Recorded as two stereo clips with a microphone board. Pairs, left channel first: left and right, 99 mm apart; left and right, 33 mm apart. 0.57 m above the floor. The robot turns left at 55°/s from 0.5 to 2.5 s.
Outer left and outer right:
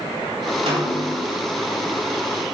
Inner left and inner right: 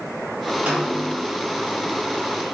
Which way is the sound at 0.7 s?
75° right (ahead or behind).